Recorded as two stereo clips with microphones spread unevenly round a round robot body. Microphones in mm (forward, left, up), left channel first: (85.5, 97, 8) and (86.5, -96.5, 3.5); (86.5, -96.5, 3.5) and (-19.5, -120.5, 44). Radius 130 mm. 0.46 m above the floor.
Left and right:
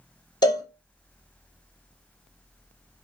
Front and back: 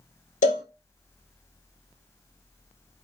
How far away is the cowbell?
About 1.0 m.